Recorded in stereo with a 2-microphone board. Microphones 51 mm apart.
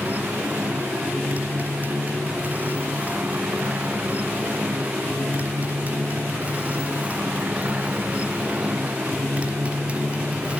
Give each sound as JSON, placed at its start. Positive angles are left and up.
{"t": 0.0, "sound": "a motorcycle", "side_deg": -35}